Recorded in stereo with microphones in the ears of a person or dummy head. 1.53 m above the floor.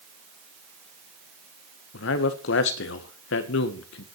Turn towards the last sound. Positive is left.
turn(degrees=65)  # may be behind; listen again after turning